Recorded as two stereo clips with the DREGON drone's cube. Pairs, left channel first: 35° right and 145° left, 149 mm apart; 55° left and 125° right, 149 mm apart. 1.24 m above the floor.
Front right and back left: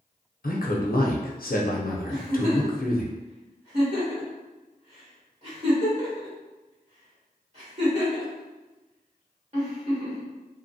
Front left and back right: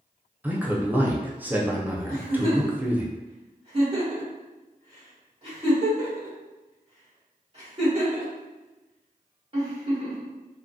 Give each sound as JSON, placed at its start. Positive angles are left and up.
{"t": 0.4, "sound": "a man speaking", "azimuth_deg": -45, "distance_m": 0.6}
{"t": 2.1, "sound": "a giggle", "azimuth_deg": -175, "distance_m": 1.6}